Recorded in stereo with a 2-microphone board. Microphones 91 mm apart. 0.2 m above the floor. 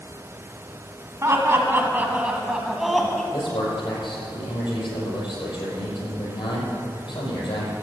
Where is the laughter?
30° right (ahead or behind), 1.6 m; by 3.2 s 5° left (ahead or behind), 1.5 m.